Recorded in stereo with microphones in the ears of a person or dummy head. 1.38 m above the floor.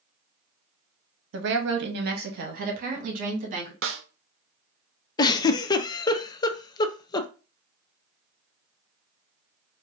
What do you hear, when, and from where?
1.3 s a woman speaking: 65° right (ahead or behind), 0.9 m; by 3.7 s 45° right (ahead or behind), 2.5 m
3.8 s a snare drum: 60° right (ahead or behind), 0.6 m
5.2 s a giggle: 20° left (ahead or behind), 0.5 m